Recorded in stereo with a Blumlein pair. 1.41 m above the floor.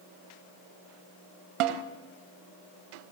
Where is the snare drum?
40° right, 1.9 m.